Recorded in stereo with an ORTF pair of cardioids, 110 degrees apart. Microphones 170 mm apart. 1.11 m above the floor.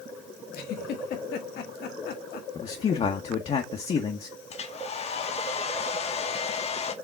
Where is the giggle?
65° left, 1.2 m.